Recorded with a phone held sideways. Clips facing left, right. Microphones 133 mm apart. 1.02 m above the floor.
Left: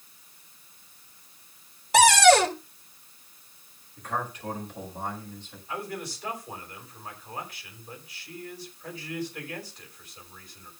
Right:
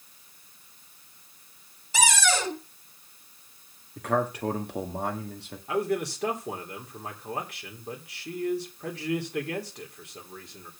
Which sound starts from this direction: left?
A cupboard door, at 1.9 s.